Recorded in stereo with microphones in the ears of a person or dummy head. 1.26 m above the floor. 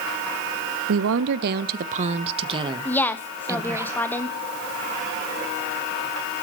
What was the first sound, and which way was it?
A woman speaking, 75° right (ahead or behind).